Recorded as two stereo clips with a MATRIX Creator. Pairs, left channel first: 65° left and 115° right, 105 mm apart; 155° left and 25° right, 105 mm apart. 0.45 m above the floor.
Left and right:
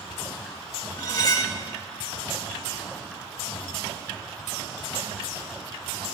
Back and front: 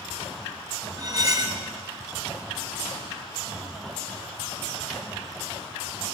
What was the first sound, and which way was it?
Cutlery clinking, 25° left.